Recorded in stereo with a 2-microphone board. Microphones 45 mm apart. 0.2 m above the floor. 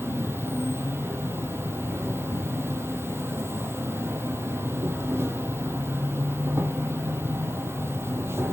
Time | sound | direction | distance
0.0 | an insect | 60° right (ahead or behind) | 0.8 m